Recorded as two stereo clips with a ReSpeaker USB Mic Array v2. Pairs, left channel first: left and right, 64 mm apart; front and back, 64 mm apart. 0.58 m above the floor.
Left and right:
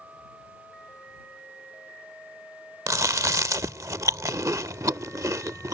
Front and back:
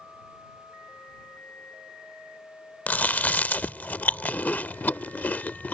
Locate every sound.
2.9 s chewing: 65° right